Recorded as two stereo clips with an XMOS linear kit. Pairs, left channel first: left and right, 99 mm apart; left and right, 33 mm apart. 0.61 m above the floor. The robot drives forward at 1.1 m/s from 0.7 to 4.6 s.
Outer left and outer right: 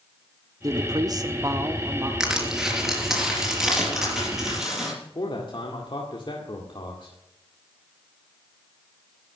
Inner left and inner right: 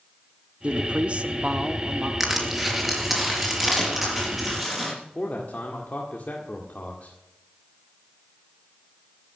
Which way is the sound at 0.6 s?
40° right (ahead or behind).